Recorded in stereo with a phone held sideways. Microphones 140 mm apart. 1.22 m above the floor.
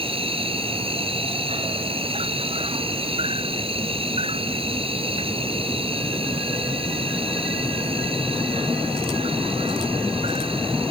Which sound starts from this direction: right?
An insect, at 0.0 s.